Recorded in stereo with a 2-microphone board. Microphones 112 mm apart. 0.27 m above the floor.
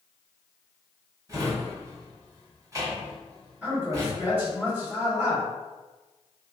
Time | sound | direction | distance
1.3 | a drawer | 30° right (ahead or behind) | 1.6 m
3.6 | a man speaking | 15° right (ahead or behind) | 1.3 m